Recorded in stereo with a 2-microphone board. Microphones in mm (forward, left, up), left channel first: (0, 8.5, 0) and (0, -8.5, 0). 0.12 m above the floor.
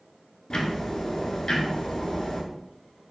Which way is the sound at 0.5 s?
40° left (ahead or behind).